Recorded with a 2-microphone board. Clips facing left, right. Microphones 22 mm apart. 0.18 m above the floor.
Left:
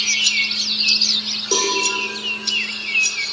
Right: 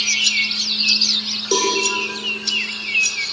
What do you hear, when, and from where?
1.5 s a cowbell: 5° right (ahead or behind), 7 m